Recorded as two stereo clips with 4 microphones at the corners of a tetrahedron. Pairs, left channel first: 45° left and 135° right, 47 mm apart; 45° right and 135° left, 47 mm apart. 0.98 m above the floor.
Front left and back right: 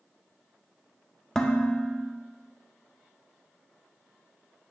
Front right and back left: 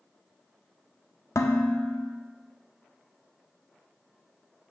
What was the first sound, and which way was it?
Dishes clattering, 30° right.